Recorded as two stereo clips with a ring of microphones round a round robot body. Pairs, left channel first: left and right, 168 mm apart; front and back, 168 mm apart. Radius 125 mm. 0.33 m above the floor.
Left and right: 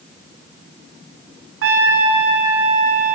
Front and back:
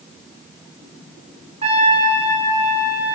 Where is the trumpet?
115° right, 0.8 m.